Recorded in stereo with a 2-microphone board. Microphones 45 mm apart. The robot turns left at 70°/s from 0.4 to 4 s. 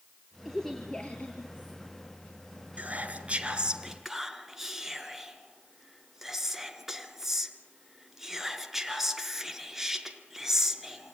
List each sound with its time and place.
0.5 s a woman speaking: 175° right, 1.7 m; by 1.8 s 95° left, 1.7 m
2.8 s whispering: 35° right (ahead or behind), 1.2 m; by 11.1 s 5° right (ahead or behind), 1.2 m